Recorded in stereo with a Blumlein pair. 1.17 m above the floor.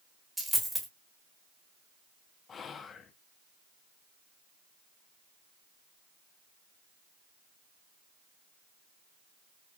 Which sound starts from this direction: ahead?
A dropped coin, at 0.4 s.